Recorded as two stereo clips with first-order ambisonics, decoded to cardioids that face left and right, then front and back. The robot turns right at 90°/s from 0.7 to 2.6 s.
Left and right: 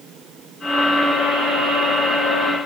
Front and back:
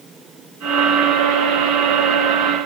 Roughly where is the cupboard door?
No cupboard door in this recording.